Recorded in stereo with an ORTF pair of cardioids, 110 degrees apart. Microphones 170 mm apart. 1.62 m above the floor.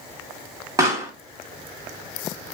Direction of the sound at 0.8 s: 20° right.